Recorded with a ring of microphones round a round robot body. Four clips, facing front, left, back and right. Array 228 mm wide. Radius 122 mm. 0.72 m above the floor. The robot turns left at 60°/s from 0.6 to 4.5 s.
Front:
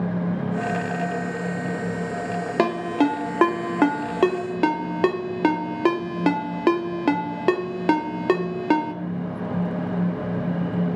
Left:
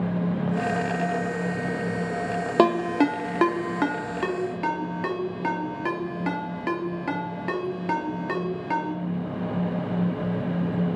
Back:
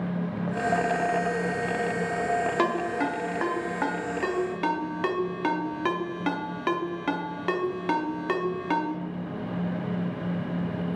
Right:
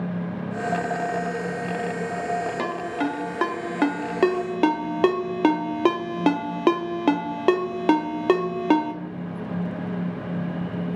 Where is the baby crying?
I don't hear a baby crying.